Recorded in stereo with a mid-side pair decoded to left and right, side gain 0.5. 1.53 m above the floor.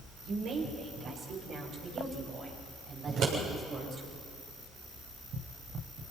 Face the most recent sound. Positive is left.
turn(degrees=-70)